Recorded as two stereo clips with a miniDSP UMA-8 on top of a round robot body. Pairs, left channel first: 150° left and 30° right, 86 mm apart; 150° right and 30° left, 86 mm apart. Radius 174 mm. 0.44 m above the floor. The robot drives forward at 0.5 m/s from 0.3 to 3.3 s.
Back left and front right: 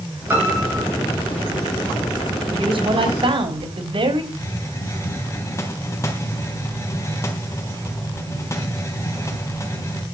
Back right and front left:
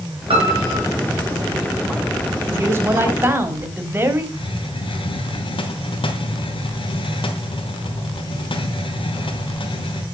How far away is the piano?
About 5.5 m.